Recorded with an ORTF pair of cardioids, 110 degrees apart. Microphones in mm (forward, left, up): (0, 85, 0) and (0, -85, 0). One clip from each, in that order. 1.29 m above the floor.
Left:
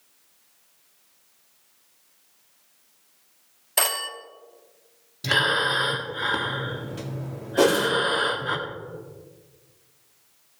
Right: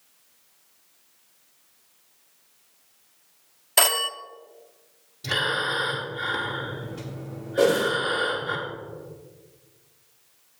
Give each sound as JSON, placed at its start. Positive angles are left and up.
{"t": 3.8, "sound": "a phone ringing", "azimuth_deg": -15, "distance_m": 0.7}
{"t": 5.2, "sound": "breathing", "azimuth_deg": 35, "distance_m": 1.6}
{"t": 7.6, "sound": "a whoosh", "azimuth_deg": 65, "distance_m": 3.5}